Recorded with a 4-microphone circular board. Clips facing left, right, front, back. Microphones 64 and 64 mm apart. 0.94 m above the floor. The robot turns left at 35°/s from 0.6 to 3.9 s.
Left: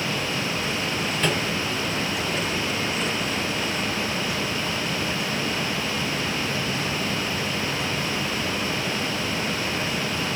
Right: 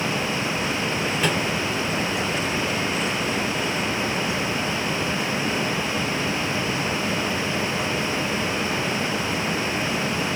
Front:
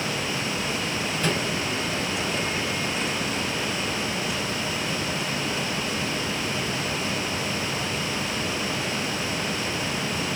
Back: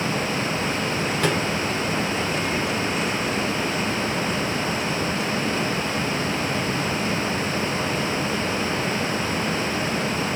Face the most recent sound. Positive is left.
turn(degrees=95)